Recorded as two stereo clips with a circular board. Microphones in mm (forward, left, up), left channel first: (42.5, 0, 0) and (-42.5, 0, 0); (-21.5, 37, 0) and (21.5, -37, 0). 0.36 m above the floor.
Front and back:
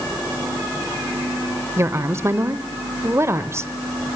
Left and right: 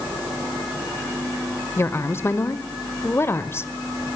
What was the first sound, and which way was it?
A woman speaking, 155° left.